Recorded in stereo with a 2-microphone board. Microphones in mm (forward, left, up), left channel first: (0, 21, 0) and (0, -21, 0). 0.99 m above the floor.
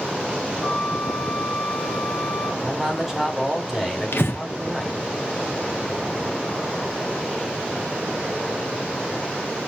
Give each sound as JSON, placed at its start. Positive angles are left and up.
{"t": 0.6, "sound": "a flute", "side_deg": 10, "distance_m": 1.9}
{"t": 2.6, "sound": "a man speaking", "side_deg": -10, "distance_m": 3.0}
{"t": 4.1, "sound": "breathing", "side_deg": 70, "distance_m": 1.3}